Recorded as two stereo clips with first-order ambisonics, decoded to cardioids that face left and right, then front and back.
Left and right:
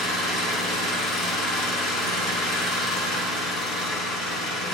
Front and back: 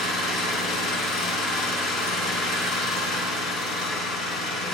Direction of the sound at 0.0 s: 55° left.